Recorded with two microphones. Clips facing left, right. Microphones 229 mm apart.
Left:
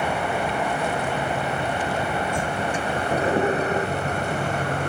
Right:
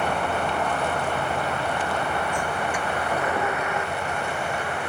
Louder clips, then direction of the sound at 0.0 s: Left 1 dB; 10° left (ahead or behind).